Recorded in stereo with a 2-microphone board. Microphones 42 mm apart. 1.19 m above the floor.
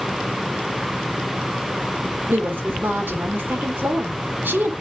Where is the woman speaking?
60° right (ahead or behind), 3.5 m.